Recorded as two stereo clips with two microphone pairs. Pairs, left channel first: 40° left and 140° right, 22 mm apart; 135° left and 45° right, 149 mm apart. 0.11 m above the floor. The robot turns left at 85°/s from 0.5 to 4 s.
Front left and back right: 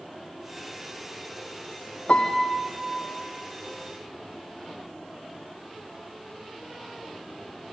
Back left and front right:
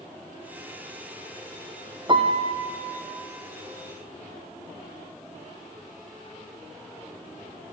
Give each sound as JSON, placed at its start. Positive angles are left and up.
{"t": 2.1, "sound": "a piano", "azimuth_deg": 15, "distance_m": 2.0}